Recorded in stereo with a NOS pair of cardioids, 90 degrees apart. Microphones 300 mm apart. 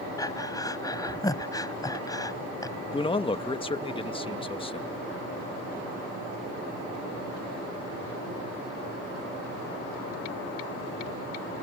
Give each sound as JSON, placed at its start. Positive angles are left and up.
{"t": 0.2, "sound": "breathing", "azimuth_deg": 10}
{"t": 2.9, "sound": "a man speaking", "azimuth_deg": 15}